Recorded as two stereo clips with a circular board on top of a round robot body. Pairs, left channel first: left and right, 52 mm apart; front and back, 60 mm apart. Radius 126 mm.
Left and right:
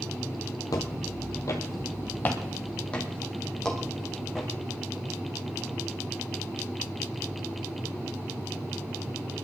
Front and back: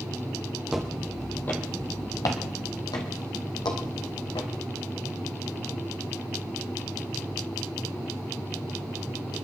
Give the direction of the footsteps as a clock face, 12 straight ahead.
9 o'clock.